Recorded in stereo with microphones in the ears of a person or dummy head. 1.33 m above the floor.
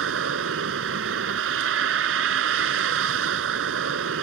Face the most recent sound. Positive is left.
turn(degrees=-75)  # may be behind; listen again after turning